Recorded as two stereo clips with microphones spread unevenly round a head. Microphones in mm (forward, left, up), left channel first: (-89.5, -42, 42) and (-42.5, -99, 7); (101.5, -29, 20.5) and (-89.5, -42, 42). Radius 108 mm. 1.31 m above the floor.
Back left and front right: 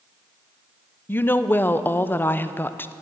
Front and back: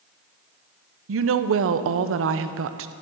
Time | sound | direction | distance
1.1 | a woman speaking | 155° right | 0.6 m